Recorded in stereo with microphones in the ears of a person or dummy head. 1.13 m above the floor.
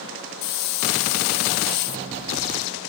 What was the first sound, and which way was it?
A hiss, 60° left (ahead or behind).